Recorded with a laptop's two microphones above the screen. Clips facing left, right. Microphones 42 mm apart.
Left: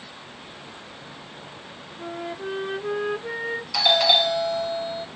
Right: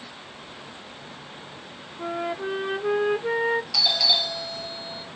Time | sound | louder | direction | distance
2.0 | a flute | right 4 dB | 20° right (ahead or behind) | 0.7 m
3.7 | a doorbell | left 5 dB | 40° left (ahead or behind) | 1.0 m